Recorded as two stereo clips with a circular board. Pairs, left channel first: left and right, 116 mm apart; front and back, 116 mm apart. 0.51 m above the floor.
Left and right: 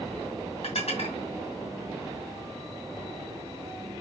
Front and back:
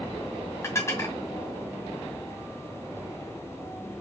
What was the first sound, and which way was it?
Dishes clattering, 65° left.